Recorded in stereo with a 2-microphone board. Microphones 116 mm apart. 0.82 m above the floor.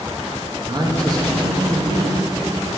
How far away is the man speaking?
About 0.9 m.